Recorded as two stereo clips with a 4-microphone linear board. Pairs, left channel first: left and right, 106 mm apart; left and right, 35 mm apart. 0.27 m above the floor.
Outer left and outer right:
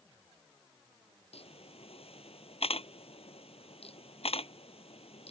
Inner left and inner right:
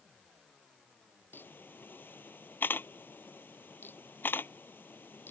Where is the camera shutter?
70° left (ahead or behind).